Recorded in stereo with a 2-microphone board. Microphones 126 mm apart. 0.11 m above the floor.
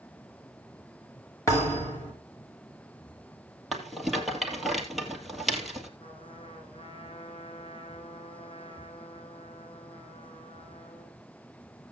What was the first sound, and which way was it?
A thud, 25° left (ahead or behind).